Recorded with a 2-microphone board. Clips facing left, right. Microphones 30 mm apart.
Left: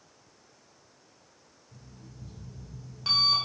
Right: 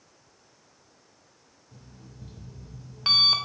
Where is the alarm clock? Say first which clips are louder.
Right 1 dB; 45° right (ahead or behind), 0.6 m.